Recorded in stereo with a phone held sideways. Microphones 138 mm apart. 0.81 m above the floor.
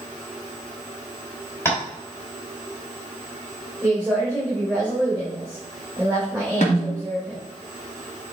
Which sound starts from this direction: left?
A snare drum, at 6.6 s.